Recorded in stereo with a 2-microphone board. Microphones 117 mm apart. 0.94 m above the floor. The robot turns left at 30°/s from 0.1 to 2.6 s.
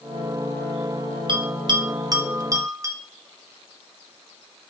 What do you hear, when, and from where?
1.3 s a bell: 40° right (ahead or behind), 0.5 m; by 3.0 s 25° right (ahead or behind), 0.5 m